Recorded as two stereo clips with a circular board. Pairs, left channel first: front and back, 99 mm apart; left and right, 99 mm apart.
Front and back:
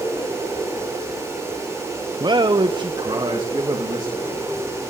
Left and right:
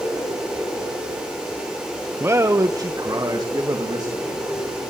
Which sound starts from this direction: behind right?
A man speaking, at 2.2 s.